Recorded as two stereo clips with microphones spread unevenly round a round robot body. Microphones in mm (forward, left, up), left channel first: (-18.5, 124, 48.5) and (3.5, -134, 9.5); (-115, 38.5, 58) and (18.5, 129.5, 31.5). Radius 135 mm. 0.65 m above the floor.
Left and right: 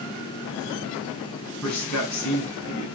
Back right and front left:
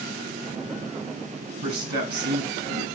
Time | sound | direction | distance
1.6 | a man speaking | 10° left | 6 m